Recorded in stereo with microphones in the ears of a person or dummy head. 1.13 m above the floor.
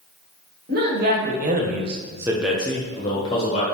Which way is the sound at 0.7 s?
55° right (ahead or behind).